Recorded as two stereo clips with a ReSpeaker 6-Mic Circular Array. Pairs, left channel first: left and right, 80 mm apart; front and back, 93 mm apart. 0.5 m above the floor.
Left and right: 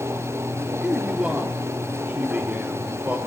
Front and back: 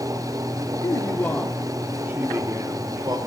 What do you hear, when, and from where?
0.8 s a man speaking: 15° right, 1.1 m; by 3.2 s 155° right, 1.6 m